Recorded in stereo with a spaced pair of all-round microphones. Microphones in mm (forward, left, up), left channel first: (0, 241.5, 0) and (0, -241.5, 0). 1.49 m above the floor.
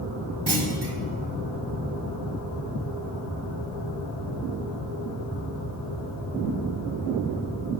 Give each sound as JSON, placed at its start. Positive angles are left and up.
{"t": 0.5, "sound": "a clunk", "side_deg": -55, "distance_m": 0.9}